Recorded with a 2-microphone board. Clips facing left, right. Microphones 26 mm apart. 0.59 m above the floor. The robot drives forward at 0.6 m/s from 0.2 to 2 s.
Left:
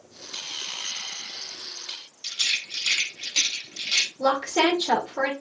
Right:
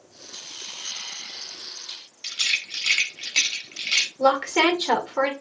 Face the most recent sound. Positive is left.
turn(degrees=-55)  # may be behind; listen again after turning